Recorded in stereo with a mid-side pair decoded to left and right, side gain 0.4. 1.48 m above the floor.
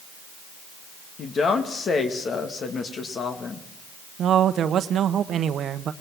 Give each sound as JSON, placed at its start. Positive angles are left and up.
{"t": 1.2, "sound": "a woman speaking", "azimuth_deg": 55, "distance_m": 2.0}
{"t": 4.2, "sound": "a man speaking", "azimuth_deg": -70, "distance_m": 1.0}